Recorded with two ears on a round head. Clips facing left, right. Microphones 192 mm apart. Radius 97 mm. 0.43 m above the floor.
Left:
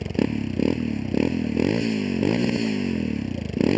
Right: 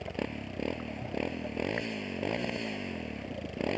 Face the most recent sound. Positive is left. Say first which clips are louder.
# left 13 dB
turn(degrees=55)  # may be behind; listen again after turning